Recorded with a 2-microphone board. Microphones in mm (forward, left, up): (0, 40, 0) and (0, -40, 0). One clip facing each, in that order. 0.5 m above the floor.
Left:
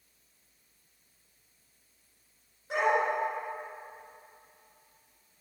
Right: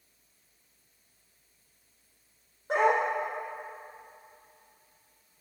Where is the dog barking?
50° right (ahead or behind), 5.5 m.